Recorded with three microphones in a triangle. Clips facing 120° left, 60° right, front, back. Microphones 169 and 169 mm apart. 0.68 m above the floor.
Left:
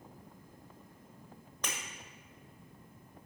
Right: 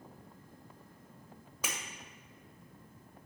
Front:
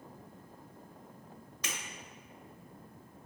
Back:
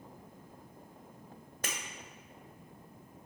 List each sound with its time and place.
1.6 s breaking glass: 145° right, 1.7 m